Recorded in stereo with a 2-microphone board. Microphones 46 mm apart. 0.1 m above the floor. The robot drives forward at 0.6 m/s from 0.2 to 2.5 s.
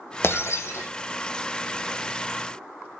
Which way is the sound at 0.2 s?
60° left (ahead or behind).